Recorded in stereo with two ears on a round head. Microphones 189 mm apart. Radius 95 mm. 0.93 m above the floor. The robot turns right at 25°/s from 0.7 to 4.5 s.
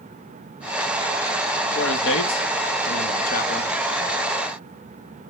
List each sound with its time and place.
1.8 s a man speaking: 85° left, 1.7 m; by 3.7 s 135° left, 1.7 m